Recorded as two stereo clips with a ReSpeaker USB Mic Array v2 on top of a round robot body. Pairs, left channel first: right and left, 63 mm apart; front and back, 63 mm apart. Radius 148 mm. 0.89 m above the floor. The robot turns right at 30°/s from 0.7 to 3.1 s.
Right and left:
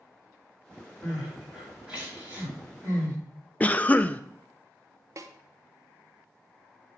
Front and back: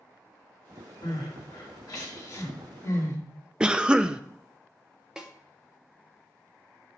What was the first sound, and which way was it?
Crying, 10° right.